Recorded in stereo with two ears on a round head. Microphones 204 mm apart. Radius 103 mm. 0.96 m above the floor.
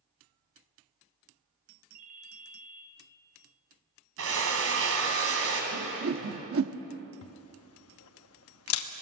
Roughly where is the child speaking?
No child speaking in this recording.